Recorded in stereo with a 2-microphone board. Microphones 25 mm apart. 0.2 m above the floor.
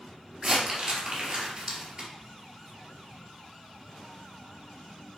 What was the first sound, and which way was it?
Crumpling, 35° right (ahead or behind).